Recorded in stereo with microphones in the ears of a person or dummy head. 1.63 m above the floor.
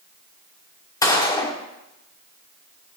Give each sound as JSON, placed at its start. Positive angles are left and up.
{"t": 1.0, "sound": "a gunshot", "side_deg": 15, "distance_m": 1.1}